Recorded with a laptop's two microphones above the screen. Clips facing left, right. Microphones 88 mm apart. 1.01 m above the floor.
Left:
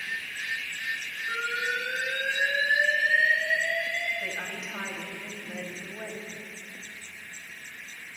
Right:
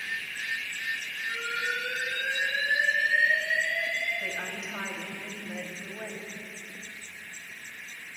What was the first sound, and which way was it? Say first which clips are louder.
An alarm: left 2 dB; 70° left (ahead or behind).